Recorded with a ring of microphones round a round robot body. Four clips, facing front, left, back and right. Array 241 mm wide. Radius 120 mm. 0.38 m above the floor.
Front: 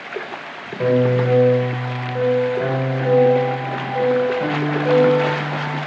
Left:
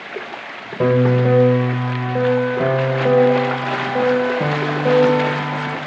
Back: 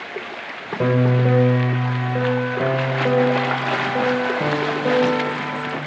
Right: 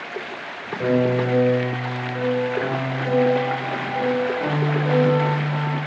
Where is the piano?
110° left, 0.7 m.